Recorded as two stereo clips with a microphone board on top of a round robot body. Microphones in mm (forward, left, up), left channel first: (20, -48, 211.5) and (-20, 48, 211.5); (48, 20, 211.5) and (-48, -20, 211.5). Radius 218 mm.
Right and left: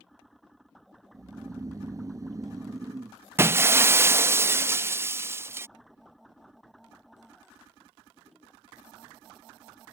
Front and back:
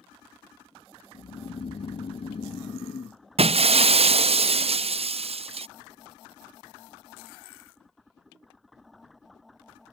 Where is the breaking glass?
Straight behind.